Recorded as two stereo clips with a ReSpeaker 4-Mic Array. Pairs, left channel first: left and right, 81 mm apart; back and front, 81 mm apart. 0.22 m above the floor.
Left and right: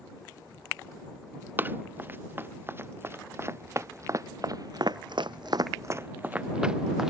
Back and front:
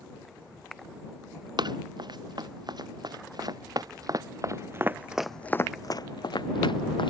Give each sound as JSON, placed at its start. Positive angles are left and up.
{"t": 1.6, "sound": "running footsteps", "azimuth_deg": -25}